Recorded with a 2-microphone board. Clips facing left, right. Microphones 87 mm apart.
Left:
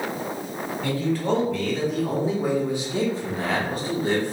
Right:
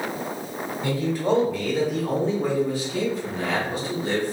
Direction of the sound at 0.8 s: 20° right (ahead or behind).